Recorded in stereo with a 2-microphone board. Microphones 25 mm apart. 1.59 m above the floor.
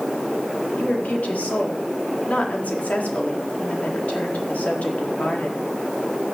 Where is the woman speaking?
70° left (ahead or behind), 4.5 m.